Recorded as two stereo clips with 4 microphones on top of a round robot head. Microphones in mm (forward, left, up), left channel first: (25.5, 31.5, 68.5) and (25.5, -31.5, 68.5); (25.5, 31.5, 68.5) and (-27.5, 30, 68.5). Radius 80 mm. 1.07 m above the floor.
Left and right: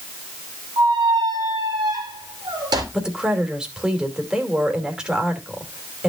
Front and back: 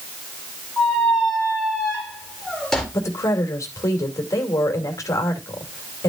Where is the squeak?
80° right, 2.5 m.